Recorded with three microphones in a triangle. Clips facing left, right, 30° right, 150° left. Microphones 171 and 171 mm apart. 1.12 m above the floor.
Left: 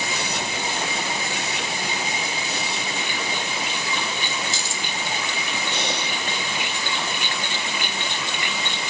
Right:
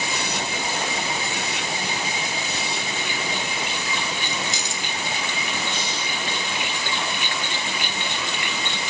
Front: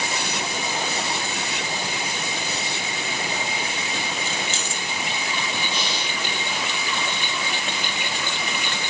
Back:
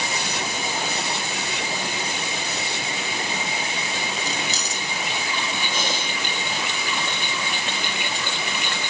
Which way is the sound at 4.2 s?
160° right.